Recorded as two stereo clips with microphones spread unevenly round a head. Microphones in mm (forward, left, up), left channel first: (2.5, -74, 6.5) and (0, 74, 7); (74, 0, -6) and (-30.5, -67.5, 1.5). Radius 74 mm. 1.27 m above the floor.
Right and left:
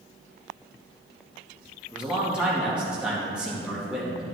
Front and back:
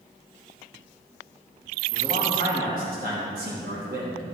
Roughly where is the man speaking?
Behind.